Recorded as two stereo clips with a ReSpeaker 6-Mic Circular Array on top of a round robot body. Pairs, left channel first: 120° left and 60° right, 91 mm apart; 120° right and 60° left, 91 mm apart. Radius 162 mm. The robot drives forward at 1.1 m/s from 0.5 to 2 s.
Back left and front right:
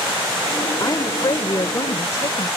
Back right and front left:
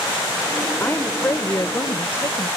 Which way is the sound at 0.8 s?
175° left.